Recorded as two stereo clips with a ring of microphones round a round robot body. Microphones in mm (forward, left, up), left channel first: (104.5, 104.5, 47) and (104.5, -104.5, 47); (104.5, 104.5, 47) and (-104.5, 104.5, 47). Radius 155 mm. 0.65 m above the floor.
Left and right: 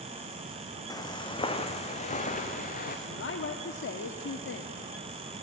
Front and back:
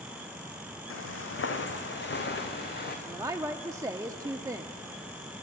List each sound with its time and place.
0.9 s footsteps: 15° left, 2.5 m; by 3.0 s 45° left, 3.5 m
3.0 s a woman speaking: 105° left, 1.0 m